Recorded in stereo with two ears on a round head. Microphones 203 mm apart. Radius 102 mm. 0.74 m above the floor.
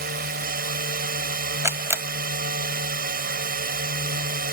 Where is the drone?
40° right (ahead or behind).